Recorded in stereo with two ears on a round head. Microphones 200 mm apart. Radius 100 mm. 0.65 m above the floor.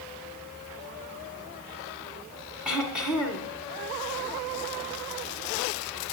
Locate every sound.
2.6 s throat clearing: 5° right (ahead or behind), 1.8 m